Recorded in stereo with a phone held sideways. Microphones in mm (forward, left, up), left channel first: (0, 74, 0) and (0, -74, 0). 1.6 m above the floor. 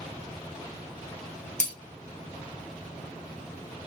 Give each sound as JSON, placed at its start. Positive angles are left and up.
{"t": 1.6, "sound": "breaking glass", "side_deg": 55, "distance_m": 1.4}